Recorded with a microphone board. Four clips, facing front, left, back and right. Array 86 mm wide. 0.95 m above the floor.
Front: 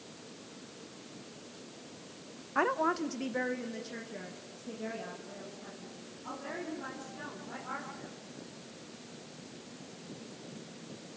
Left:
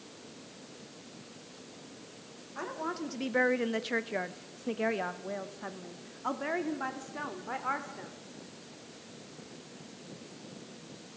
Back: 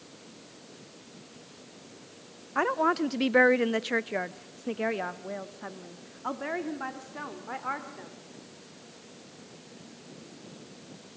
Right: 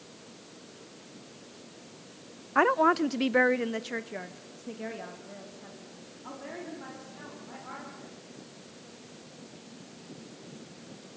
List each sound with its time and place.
2.5 s a woman speaking: 100° right, 0.6 m; by 8.1 s 135° left, 3 m